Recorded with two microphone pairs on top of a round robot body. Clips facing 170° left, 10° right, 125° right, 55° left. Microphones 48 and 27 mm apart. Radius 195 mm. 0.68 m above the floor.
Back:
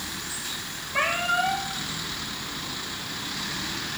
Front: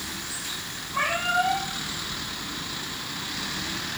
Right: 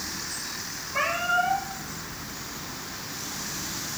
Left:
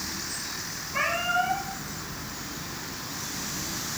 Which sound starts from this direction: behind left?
A cat meowing, at 0.9 s.